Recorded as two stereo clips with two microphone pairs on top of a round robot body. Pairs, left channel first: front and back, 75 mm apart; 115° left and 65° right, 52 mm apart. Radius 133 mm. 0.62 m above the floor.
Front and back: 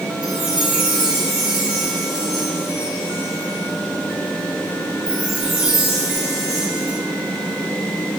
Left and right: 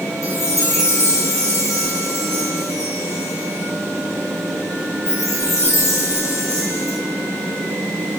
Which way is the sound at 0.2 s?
105° left.